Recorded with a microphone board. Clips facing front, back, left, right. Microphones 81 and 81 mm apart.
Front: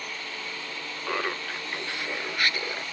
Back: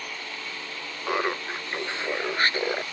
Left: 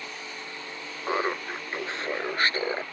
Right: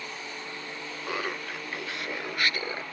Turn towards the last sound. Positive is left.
turn(degrees=140)